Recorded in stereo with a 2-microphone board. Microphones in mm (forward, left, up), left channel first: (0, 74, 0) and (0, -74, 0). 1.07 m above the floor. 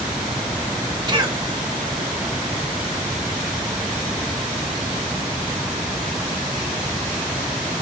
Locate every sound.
1.1 s a cough: 30° right (ahead or behind), 1.5 m